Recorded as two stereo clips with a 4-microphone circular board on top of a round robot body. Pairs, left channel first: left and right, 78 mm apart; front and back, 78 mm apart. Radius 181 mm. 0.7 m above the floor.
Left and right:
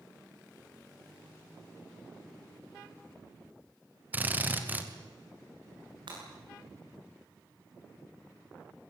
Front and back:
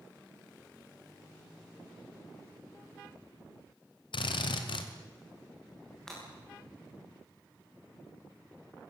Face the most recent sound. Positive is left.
turn(degrees=-85)